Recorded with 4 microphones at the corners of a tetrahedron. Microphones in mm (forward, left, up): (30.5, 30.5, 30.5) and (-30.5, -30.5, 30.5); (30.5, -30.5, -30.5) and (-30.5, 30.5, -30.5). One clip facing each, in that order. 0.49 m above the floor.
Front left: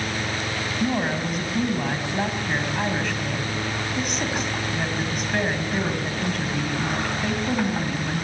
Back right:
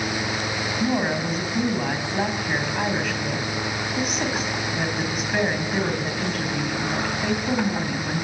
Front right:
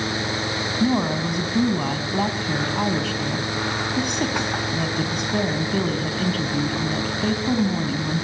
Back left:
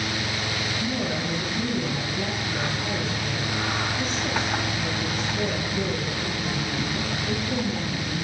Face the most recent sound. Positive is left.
turn(degrees=-50)